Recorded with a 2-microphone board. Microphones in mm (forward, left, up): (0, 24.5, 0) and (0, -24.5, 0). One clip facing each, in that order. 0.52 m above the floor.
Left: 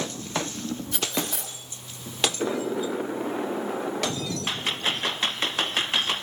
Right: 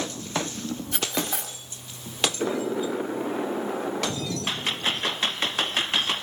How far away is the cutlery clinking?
About 1.8 m.